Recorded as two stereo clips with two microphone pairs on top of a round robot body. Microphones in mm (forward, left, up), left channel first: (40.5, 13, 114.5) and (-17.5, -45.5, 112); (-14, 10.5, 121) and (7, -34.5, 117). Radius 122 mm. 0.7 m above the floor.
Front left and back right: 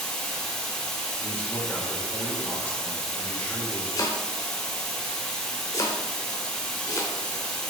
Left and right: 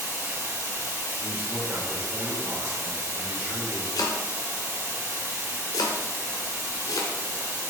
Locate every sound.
0.0 s running water: 40° right, 4 m
1.2 s a man speaking: 25° right, 3.5 m
4.0 s chopping: 105° left, 0.7 m